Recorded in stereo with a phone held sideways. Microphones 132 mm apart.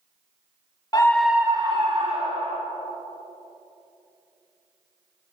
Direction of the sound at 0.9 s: 30° left (ahead or behind).